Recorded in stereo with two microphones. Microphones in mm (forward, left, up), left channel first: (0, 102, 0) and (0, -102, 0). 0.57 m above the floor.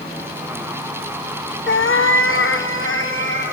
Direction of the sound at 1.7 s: 65° left (ahead or behind).